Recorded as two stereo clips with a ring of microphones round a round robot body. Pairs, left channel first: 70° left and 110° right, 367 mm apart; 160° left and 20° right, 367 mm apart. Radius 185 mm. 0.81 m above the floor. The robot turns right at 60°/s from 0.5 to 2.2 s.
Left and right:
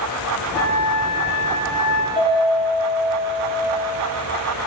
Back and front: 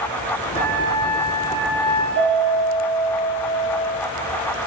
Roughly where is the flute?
Ahead.